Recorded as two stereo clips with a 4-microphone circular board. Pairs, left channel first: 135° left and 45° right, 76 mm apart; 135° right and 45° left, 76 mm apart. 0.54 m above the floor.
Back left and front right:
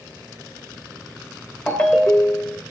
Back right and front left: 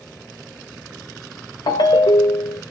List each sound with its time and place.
1.7 s a ringtone: 150° right, 0.7 m